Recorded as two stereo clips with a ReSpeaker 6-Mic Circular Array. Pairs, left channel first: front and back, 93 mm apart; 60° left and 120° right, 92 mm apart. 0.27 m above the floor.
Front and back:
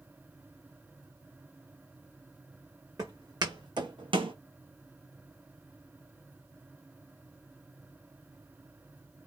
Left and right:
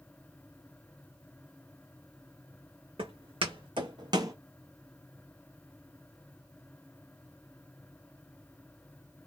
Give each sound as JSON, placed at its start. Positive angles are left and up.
{"t": 3.0, "sound": "footsteps", "azimuth_deg": -130, "distance_m": 1.2}